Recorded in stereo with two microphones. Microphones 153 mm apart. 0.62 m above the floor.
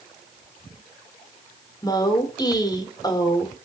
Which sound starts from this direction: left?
A woman speaking, at 1.8 s.